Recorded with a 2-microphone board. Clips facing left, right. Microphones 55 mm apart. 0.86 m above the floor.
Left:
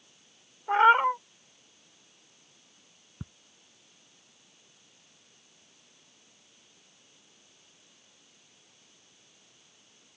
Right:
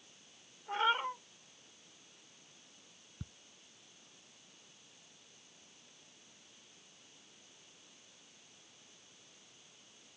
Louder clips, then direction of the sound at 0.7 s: Left 13 dB; 60° left (ahead or behind).